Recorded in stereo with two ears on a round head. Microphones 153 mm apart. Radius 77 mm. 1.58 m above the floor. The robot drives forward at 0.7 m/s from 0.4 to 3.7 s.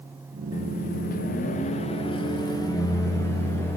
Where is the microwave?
45° left (ahead or behind), 0.7 m; by 3.8 s 15° left (ahead or behind), 1.9 m.